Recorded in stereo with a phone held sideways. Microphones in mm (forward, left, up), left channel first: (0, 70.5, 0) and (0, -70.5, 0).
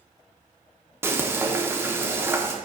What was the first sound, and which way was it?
Frying, 15° right (ahead or behind).